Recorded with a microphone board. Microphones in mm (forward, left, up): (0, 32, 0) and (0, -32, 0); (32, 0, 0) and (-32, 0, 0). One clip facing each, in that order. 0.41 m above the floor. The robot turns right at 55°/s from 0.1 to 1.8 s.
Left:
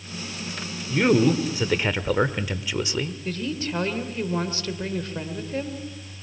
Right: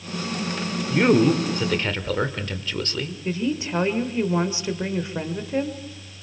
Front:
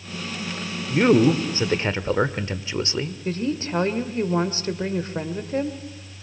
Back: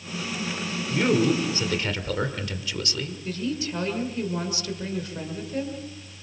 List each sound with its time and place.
0.9 s a man speaking: 25° right, 1.5 m; by 3.1 s 25° left, 1.5 m
3.2 s a woman speaking: 25° right, 1.8 m